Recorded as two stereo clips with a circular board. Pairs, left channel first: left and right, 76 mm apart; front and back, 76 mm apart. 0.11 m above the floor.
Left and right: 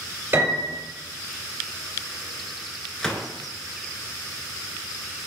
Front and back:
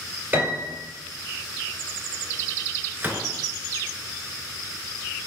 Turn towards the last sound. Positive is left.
turn(degrees=160)